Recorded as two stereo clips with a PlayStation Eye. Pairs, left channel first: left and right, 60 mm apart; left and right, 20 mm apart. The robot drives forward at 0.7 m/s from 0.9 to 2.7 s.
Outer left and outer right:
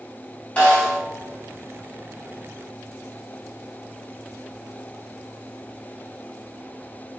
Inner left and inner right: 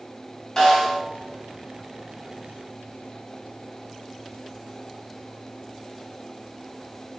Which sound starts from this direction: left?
A snare drum, at 0.6 s.